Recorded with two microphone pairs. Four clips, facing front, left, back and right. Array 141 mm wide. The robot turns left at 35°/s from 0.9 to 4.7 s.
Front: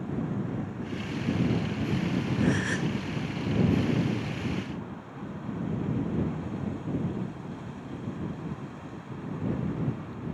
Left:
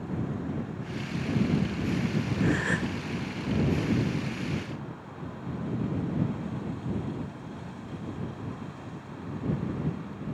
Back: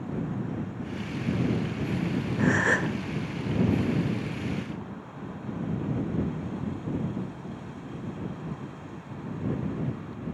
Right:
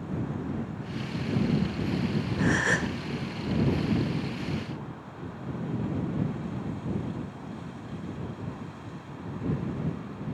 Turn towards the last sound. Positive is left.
turn(degrees=130)